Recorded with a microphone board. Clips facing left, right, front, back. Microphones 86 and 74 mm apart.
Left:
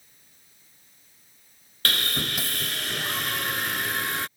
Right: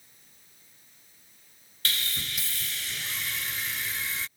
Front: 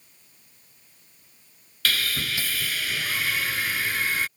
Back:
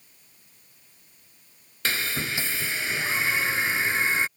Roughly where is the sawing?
Behind left.